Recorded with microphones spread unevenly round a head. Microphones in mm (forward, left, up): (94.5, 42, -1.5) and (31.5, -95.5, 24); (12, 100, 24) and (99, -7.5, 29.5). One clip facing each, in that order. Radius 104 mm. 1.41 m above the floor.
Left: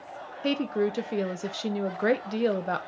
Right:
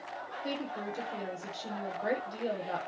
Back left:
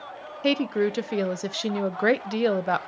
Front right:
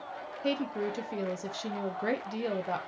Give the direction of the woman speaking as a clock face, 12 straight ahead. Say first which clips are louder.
Left 12 dB, back left 8 dB; 8 o'clock.